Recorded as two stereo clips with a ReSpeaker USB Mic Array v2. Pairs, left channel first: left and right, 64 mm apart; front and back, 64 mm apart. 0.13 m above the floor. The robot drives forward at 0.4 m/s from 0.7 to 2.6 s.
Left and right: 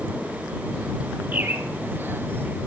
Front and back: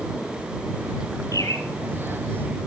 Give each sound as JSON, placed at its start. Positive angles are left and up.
{"t": 1.3, "sound": "a bird", "azimuth_deg": -30, "distance_m": 1.6}